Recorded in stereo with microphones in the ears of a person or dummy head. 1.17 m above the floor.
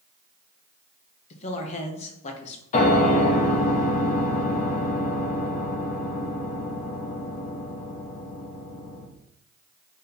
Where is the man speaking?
35° left (ahead or behind), 0.8 m.